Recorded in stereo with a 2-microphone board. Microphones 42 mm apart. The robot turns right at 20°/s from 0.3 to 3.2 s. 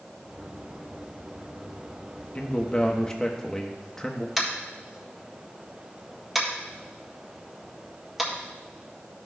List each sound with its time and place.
2.4 s a man speaking: 30° left (ahead or behind), 1.1 m; by 4.3 s 10° left (ahead or behind), 1.1 m
4.4 s tapping: 5° right (ahead or behind), 1.8 m